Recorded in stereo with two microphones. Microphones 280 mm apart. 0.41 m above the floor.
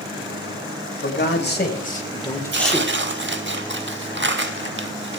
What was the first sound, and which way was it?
A man speaking, 45° left (ahead or behind).